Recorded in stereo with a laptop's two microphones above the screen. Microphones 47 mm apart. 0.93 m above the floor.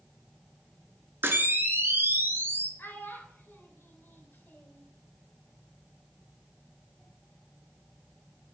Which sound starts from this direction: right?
A camera shutter, at 1.2 s.